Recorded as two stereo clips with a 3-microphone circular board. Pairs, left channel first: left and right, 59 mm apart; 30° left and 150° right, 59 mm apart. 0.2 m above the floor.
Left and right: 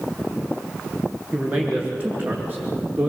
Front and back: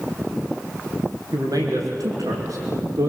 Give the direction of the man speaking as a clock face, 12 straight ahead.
5 o'clock.